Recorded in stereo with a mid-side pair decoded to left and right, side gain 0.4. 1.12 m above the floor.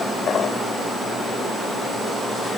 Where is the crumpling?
I don't hear crumpling.